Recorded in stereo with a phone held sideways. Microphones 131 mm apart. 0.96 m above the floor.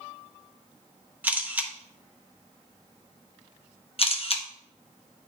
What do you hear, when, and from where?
1.2 s a camera shutter: 10° right (ahead or behind), 0.8 m
4.0 s a camera shutter: 45° left (ahead or behind), 0.8 m